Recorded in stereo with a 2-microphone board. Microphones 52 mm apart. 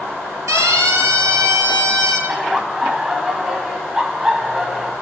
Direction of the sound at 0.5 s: 70° right (ahead or behind).